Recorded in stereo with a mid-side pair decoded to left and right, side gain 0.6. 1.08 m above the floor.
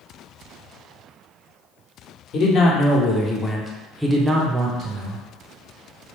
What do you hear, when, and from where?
2.3 s a man speaking: 50° left, 1.2 m; by 5.2 s 60° right, 1.0 m